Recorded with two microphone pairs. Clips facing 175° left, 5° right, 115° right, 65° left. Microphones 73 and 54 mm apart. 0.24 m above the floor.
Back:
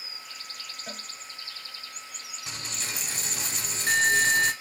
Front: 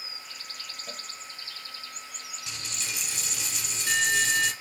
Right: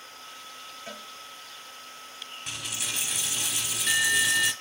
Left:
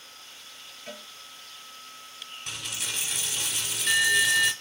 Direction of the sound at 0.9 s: 165° left.